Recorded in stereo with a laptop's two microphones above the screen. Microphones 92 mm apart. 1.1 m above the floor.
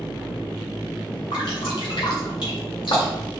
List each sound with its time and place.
1.3 s dripping: 75° left (ahead or behind), 2.5 m